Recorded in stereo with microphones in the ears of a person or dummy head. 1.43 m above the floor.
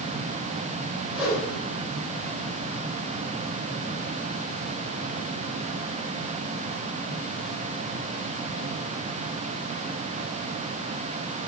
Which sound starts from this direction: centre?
A whoosh, at 1.1 s.